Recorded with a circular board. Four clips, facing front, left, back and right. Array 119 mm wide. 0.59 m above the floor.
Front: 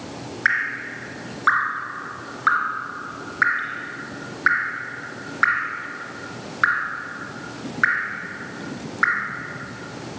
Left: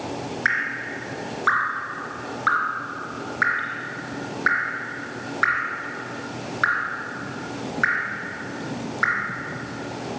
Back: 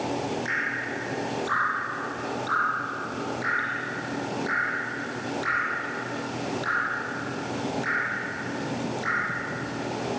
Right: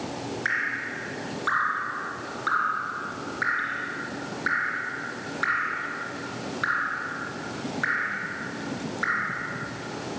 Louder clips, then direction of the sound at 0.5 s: Left 5 dB, front 5 dB; 25° left.